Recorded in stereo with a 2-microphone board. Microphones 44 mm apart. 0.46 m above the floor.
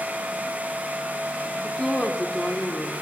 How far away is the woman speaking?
About 0.7 m.